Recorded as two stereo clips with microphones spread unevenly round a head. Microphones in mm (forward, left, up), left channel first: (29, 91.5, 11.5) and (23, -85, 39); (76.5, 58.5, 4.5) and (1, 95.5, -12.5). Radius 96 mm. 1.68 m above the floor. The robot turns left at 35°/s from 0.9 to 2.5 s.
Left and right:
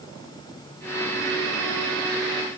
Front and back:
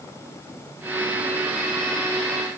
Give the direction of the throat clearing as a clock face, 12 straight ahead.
I don't hear throat clearing.